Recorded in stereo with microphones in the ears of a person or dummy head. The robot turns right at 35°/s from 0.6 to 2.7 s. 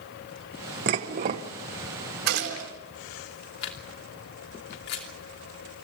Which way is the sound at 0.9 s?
35° right (ahead or behind).